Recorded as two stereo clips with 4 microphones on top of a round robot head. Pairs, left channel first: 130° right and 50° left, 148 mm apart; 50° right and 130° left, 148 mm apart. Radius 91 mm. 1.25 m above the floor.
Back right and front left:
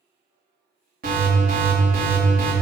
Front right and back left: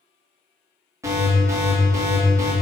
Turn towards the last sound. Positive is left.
turn(degrees=60)